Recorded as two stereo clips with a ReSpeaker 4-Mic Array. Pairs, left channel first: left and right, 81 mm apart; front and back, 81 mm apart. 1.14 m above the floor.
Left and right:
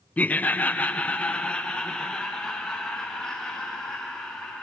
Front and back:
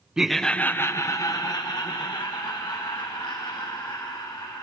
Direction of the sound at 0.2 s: 115° left.